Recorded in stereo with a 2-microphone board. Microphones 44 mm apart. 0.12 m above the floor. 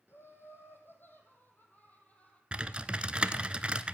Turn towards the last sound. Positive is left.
turn(degrees=-25)  # may be behind; listen again after turning